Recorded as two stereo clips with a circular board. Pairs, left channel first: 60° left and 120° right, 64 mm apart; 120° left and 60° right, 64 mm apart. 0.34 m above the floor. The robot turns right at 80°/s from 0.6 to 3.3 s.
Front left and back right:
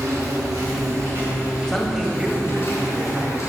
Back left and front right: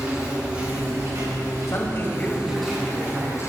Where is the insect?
130° right, 3.5 m; by 3.5 s 85° left, 3.5 m.